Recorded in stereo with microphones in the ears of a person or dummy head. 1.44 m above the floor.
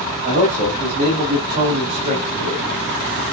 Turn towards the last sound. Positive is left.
turn(degrees=-45)  # may be behind; listen again after turning